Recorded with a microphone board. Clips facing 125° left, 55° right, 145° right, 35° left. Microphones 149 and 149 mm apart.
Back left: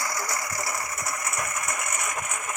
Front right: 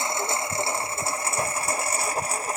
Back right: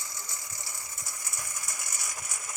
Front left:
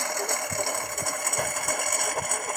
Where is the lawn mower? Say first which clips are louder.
Front right 3 dB, front left 16 dB; 10° left; by 2.6 s straight ahead.